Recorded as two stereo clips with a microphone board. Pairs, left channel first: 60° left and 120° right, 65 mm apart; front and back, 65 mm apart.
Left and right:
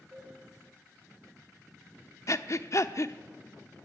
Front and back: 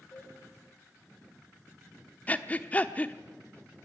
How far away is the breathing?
About 1.0 m.